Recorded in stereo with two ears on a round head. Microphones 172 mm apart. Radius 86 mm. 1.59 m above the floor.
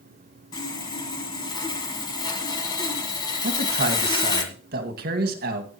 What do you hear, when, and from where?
0.5 s sawing: 20° left (ahead or behind), 1.8 m
3.4 s a man speaking: 50° right (ahead or behind), 1.9 m